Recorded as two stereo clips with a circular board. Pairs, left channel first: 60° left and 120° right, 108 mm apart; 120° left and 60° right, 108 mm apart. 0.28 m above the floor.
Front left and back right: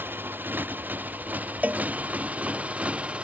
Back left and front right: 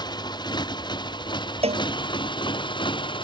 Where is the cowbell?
45° right.